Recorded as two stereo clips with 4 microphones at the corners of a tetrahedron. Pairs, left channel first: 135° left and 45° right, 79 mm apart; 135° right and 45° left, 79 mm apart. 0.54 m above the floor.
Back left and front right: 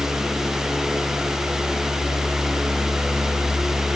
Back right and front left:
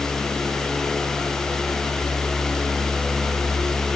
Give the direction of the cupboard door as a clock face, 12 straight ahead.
No cupboard door in this recording.